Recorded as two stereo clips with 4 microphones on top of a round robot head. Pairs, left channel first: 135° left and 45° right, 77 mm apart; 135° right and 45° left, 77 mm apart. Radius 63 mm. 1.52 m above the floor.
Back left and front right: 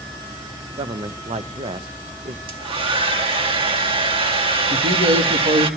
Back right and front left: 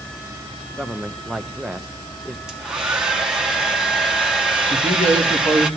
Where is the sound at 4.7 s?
60° right, 2.5 m.